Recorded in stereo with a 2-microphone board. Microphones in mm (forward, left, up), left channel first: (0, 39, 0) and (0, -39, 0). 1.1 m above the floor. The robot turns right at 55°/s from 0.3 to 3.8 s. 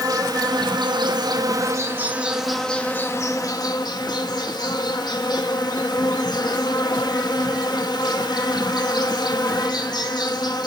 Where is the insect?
120° right, 0.7 m; by 10.7 s 70° left, 0.7 m.